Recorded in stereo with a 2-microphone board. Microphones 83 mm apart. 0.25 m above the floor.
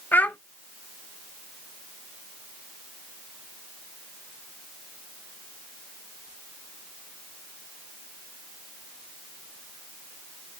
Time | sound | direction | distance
0.1 | a child speaking | 20° left (ahead or behind) | 0.5 m